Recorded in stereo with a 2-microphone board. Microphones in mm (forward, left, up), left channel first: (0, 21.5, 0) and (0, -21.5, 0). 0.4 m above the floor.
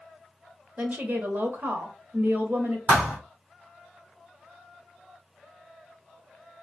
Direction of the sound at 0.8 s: 40° right (ahead or behind).